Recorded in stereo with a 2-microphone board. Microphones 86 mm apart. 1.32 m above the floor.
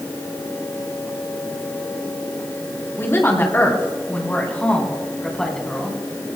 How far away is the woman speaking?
About 3.5 m.